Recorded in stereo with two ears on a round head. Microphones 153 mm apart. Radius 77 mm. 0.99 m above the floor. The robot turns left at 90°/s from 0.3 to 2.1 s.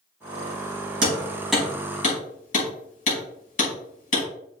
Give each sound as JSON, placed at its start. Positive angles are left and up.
{"t": 1.0, "sound": "hammering", "side_deg": -50, "distance_m": 5.0}